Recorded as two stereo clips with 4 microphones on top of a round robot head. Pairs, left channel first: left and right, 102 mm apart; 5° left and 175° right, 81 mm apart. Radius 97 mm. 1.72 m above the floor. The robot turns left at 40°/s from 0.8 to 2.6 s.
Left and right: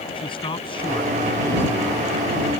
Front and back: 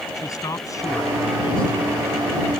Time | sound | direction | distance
0.1 | a man speaking | 55° left | ?